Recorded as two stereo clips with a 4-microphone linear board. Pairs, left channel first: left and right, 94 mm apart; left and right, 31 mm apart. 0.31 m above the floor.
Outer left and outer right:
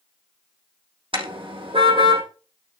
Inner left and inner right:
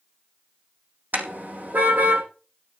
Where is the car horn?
65° right (ahead or behind), 6 m.